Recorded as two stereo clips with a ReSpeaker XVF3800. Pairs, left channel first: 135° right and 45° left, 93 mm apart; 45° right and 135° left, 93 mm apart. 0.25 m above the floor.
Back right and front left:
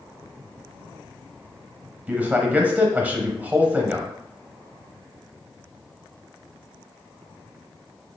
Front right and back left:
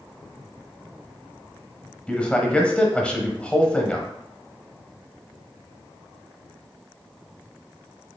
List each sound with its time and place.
2.1 s a man speaking: 10° left, 1.0 m